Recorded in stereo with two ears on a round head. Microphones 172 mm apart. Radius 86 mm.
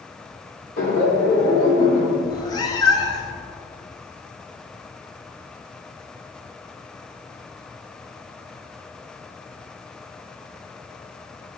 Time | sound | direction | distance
0.8 | laughter | 40° left (ahead or behind) | 1.3 m
2.2 | a cat meowing | 20° left (ahead or behind) | 0.6 m